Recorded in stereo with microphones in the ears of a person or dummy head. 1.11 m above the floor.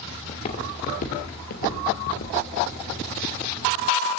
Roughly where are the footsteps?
Left.